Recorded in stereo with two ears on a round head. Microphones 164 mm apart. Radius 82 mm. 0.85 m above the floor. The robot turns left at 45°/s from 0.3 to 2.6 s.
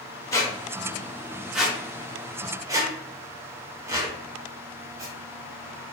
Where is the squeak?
20° left (ahead or behind), 0.5 m; by 5.1 s 20° right (ahead or behind), 0.5 m.